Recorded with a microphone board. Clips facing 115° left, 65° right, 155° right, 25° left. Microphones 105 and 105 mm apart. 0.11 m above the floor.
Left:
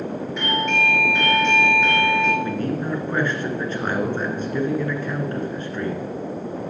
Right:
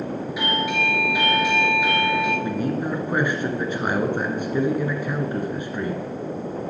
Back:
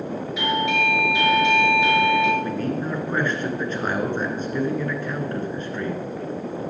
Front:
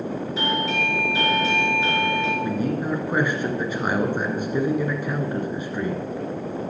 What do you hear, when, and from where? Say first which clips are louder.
0.4 s a doorbell: left 2 dB, back 3 dB; 10° left, 2.0 m
2.4 s a man speaking: even, front 1 dB; 25° right, 1.6 m